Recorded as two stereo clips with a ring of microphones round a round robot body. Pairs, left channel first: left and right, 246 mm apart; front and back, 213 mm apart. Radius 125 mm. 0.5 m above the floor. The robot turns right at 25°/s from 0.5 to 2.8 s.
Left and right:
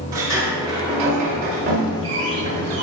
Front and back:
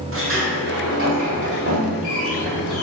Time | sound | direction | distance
0.1 | a sliding door | 165° right | 1.8 m